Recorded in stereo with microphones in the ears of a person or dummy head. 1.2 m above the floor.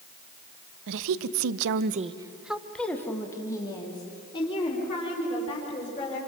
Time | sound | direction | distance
0.9 | a woman speaking | 75° right (ahead or behind) | 1.1 m